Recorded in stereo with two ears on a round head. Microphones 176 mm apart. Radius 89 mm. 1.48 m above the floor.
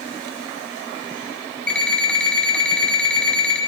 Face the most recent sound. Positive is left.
turn(degrees=5)  # may be behind; listen again after turning